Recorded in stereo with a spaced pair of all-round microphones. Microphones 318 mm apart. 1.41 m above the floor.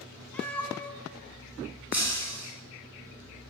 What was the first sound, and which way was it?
A cat meowing, 5° left (ahead or behind).